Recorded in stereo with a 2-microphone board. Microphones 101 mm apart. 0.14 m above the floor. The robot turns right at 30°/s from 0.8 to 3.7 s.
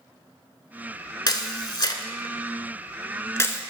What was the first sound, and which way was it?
A camera shutter, 45° left (ahead or behind).